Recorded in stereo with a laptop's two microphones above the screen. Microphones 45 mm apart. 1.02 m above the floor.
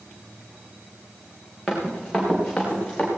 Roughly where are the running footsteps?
Centre.